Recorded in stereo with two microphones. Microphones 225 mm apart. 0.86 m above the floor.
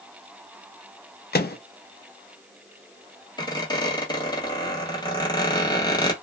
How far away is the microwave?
About 0.5 m.